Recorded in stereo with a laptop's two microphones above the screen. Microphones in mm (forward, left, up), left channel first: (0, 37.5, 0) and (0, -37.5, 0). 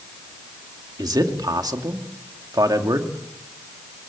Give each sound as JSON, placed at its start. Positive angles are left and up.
{"t": 1.0, "sound": "a man speaking", "side_deg": -65, "distance_m": 2.5}